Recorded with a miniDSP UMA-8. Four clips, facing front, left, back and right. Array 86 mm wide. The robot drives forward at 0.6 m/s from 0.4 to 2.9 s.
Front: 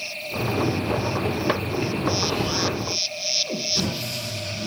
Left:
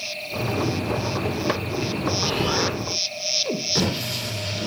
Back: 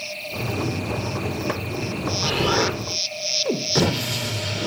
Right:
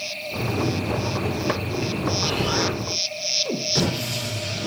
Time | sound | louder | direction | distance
2.2 | an explosion | left 1 dB, back 3 dB | 175° left | 3 m